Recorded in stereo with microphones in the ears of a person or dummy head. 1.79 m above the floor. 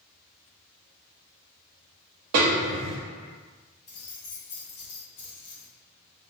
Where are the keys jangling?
60° left (ahead or behind), 1.7 m.